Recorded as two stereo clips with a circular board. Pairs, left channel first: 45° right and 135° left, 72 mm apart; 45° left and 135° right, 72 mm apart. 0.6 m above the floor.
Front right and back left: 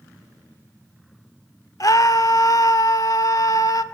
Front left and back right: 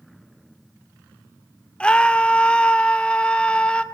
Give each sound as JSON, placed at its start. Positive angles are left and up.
{"t": 1.8, "sound": "a scream", "azimuth_deg": -25, "distance_m": 1.7}